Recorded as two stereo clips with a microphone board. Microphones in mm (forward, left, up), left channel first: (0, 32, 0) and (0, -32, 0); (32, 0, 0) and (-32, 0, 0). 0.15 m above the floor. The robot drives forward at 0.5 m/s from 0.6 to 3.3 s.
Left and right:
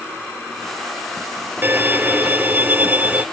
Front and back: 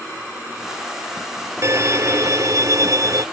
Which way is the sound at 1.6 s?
145° right.